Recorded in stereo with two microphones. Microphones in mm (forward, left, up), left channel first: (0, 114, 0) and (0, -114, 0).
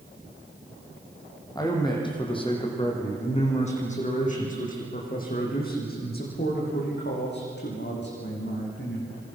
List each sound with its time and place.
1.6 s a man speaking: 15° left (ahead or behind), 6 m; by 9.3 s 55° left (ahead or behind), 10 m